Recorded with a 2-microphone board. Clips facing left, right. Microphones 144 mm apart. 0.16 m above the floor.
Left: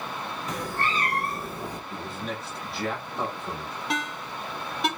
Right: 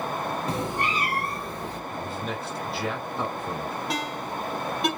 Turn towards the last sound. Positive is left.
turn(degrees=0)  # may be behind; listen again after turning